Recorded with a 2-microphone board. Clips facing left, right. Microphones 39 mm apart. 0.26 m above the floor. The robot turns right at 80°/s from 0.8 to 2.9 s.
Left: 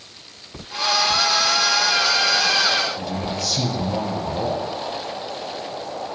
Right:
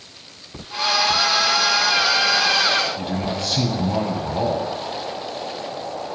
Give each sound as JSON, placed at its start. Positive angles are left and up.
{"t": 3.0, "sound": "a man speaking", "side_deg": -40, "distance_m": 1.4}